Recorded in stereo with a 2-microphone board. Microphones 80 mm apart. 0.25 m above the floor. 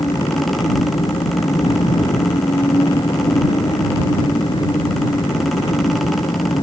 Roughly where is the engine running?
Left.